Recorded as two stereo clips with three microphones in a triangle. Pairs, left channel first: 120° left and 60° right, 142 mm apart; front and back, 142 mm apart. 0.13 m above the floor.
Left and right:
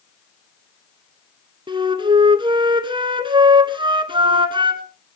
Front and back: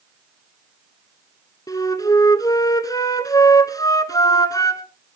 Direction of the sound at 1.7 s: 45° right.